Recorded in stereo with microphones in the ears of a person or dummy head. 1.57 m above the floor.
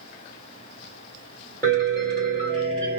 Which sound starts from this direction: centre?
A piano, at 1.6 s.